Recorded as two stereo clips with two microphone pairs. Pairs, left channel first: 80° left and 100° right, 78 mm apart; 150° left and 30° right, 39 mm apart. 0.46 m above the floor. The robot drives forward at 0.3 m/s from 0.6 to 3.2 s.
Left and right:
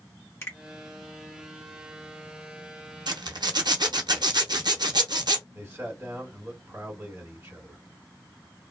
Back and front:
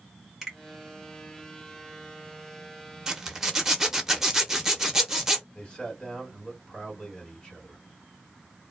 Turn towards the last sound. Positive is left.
turn(degrees=-150)